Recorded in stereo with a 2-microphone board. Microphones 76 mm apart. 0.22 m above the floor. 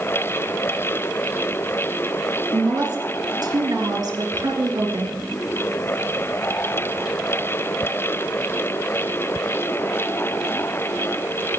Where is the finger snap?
I don't hear a finger snap.